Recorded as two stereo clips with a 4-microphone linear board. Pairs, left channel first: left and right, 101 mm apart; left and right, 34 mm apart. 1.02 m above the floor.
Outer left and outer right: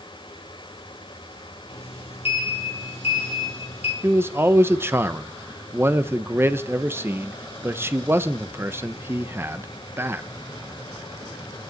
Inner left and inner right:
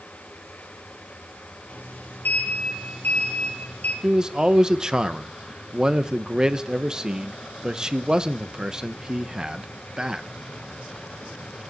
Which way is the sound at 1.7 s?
80° left.